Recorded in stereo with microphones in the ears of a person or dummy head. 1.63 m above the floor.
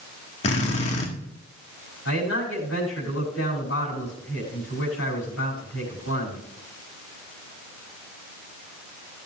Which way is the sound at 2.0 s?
80° left.